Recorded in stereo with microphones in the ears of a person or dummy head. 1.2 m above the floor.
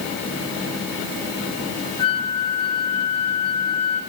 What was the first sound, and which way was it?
A flute, 25° left (ahead or behind).